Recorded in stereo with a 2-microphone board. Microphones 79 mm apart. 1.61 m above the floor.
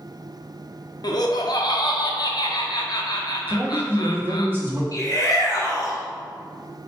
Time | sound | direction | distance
1.0 | laughter | 60° left (ahead or behind) | 0.7 m
3.5 | a man speaking | 30° right (ahead or behind) | 0.9 m
4.9 | a shout | 50° left (ahead or behind) | 0.7 m